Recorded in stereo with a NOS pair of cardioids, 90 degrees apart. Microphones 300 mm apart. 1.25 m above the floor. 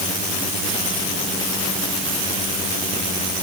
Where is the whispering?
I don't hear whispering.